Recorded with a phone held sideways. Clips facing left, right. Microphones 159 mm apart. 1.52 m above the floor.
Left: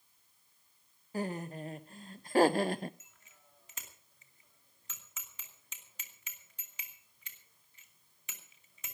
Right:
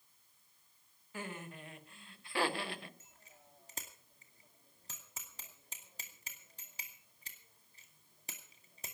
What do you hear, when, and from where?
1.1 s laughter: 40° left (ahead or behind), 1.4 m; by 2.9 s 45° left (ahead or behind), 0.6 m
3.0 s a bicycle bell: 35° right (ahead or behind), 2.5 m